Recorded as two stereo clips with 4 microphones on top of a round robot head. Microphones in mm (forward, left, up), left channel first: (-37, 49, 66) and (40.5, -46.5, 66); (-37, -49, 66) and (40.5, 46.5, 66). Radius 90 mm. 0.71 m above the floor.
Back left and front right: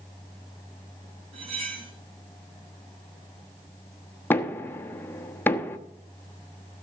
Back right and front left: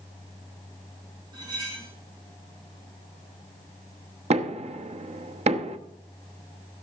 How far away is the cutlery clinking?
About 4.5 m.